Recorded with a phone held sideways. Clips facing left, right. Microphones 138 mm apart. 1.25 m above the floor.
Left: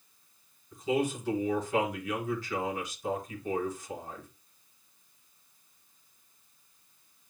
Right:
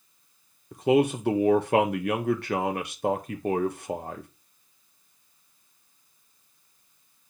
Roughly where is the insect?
I don't hear an insect.